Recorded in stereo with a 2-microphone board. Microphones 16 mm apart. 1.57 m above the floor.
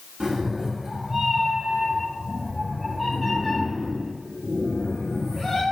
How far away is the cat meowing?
About 2.0 m.